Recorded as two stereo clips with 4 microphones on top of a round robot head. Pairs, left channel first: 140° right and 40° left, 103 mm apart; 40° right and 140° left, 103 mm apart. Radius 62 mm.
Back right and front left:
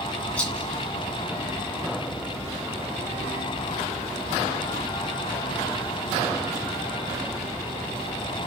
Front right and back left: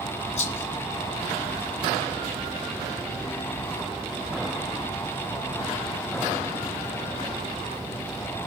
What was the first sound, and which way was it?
A rattle, 60° right.